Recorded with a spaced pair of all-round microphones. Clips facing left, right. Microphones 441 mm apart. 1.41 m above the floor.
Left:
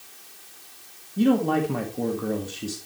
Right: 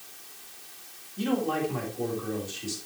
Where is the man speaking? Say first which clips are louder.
Left 7 dB; 70° left (ahead or behind), 1.8 m.